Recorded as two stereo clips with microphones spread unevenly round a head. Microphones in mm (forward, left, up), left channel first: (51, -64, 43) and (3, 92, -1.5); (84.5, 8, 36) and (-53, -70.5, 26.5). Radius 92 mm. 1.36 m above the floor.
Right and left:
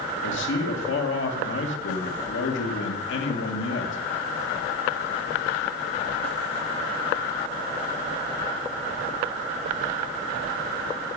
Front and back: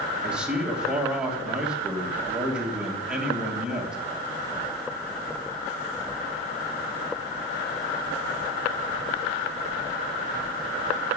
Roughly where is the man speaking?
Ahead right.